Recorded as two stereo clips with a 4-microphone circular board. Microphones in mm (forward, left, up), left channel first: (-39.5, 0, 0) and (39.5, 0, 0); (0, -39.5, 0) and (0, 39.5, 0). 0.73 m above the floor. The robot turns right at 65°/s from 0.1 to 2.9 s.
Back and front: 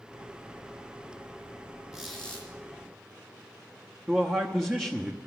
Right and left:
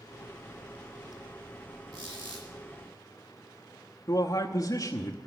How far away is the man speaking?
About 0.8 m.